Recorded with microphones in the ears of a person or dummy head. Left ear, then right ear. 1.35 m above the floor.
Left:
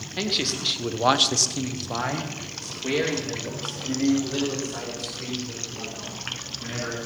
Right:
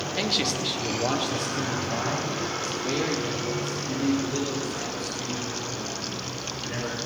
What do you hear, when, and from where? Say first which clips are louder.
0.2 s a man speaking: left 1 dB; 5° right (ahead or behind), 1.1 m; by 7.0 s 55° left (ahead or behind), 6 m